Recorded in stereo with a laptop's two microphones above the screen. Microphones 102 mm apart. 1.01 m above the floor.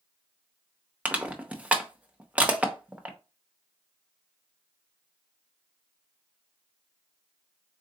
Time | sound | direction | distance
1.1 | crushing | 15° right (ahead or behind) | 0.8 m